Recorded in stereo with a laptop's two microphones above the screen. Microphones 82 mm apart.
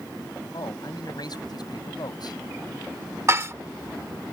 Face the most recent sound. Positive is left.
turn(degrees=-35)  # may be behind; listen again after turning